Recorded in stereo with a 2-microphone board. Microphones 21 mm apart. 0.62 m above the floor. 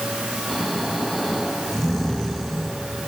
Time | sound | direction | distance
0.5 | snoring | 15° left (ahead or behind) | 7 m